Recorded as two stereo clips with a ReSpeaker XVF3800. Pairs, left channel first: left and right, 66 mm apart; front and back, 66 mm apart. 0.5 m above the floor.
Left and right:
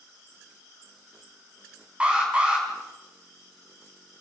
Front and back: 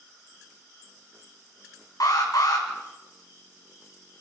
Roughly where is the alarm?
Ahead.